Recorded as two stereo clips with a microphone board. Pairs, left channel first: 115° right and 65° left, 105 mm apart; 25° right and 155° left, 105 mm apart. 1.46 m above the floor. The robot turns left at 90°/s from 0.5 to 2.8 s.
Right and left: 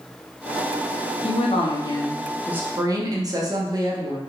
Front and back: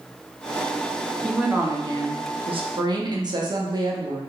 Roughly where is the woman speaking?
Right.